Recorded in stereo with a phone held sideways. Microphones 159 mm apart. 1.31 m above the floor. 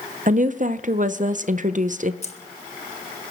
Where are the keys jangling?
45° left (ahead or behind), 1.4 m.